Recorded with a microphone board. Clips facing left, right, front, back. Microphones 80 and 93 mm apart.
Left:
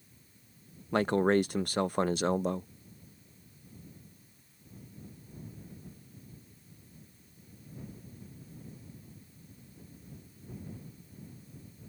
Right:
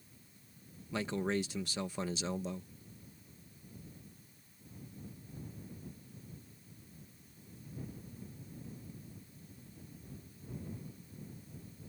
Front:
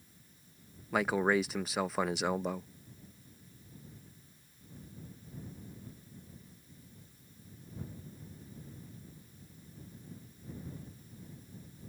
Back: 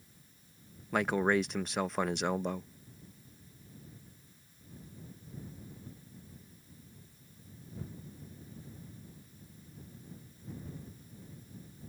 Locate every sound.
0.9 s a man speaking: 85° left